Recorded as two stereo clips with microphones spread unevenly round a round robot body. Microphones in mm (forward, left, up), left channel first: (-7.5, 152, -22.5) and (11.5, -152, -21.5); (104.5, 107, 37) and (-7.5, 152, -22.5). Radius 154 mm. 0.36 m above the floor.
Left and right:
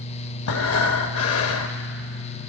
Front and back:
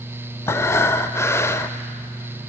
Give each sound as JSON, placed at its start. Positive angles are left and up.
{"t": 0.5, "sound": "breathing", "azimuth_deg": 70, "distance_m": 0.6}